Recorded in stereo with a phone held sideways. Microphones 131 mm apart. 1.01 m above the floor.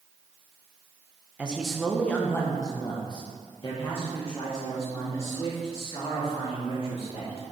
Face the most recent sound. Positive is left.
turn(degrees=55)  # may be behind; listen again after turning